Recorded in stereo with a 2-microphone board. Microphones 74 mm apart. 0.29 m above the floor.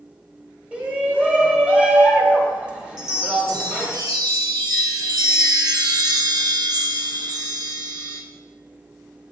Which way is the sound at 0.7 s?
15° right (ahead or behind).